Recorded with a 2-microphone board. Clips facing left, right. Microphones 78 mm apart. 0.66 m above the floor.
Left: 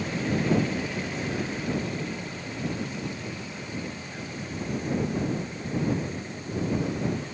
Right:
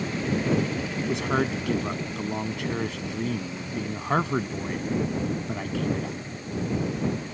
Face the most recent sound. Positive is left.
turn(degrees=-80)